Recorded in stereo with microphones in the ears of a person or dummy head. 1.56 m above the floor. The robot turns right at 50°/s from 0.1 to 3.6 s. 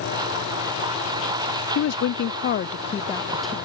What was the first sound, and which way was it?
A woman speaking, 95° left.